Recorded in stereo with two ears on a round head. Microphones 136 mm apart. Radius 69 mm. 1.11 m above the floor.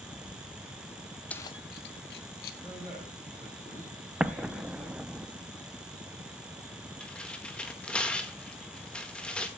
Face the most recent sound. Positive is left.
turn(degrees=5)  # may be behind; listen again after turning